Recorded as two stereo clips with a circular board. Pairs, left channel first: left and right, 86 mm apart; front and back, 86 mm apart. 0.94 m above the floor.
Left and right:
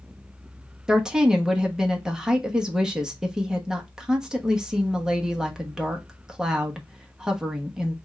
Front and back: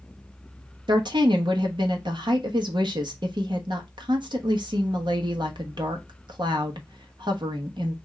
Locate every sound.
0.9 s a woman speaking: 170° right, 1.0 m